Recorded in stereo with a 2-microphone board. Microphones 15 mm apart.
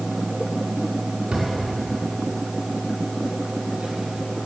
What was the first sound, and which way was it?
A drawer, 90° right.